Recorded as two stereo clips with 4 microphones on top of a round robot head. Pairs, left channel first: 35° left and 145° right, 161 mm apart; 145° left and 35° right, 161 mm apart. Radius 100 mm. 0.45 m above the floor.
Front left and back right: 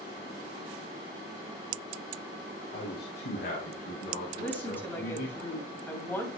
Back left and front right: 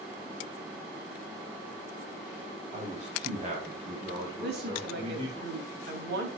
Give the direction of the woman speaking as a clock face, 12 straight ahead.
1 o'clock.